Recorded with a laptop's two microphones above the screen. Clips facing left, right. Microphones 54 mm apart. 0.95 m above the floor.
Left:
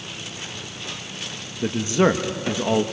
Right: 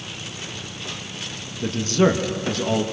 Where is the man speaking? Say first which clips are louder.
Even; 15° left (ahead or behind), 1.3 m.